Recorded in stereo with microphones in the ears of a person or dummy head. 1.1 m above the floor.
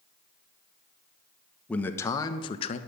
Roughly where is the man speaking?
Centre.